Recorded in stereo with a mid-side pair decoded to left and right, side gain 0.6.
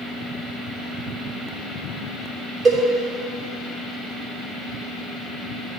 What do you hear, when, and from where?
2.6 s a cowbell: 40° right, 3 m